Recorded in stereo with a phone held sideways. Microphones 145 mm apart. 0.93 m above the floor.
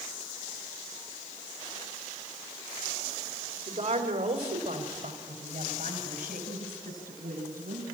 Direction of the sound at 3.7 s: 60° right (ahead or behind).